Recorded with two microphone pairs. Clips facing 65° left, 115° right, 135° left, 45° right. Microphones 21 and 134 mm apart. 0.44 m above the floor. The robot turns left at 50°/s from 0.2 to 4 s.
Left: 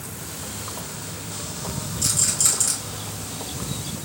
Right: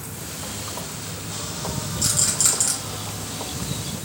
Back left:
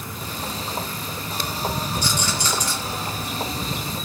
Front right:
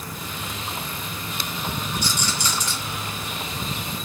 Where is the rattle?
155° right, 1.8 m; by 2.8 s 170° left, 1.8 m.